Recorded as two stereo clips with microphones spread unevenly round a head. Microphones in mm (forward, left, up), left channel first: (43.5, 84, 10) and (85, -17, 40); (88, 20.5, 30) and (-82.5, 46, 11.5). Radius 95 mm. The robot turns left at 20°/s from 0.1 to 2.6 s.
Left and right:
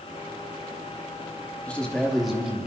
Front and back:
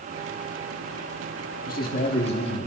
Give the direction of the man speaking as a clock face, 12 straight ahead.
11 o'clock.